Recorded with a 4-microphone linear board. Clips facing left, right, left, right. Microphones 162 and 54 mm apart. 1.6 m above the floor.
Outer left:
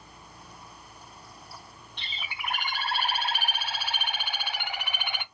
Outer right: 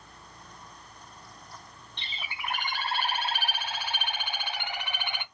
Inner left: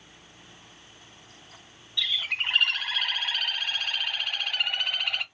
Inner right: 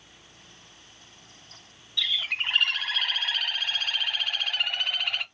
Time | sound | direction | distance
2.0 | a bird | 10° left (ahead or behind) | 2 m